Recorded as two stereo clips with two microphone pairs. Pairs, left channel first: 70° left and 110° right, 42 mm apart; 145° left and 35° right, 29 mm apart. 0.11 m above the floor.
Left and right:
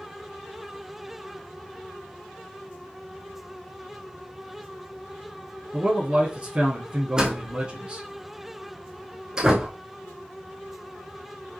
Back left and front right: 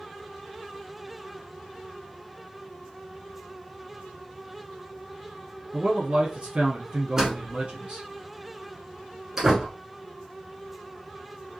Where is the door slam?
70° right, 1.0 m.